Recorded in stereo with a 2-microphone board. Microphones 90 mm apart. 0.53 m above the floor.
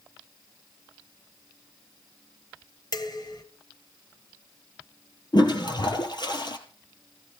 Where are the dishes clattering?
50° left (ahead or behind), 1.7 m.